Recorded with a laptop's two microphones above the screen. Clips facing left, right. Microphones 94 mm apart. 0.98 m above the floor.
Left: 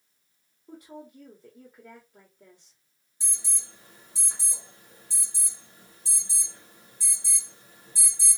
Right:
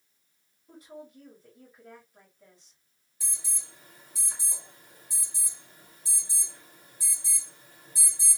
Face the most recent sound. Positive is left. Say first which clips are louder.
# left 1 dB
turn(degrees=30)  # may be behind; listen again after turning